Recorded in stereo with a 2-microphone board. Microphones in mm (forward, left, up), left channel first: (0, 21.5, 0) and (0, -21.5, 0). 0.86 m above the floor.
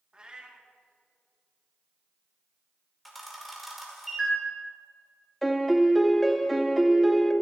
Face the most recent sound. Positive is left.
turn(degrees=5)  # may be behind; listen again after turning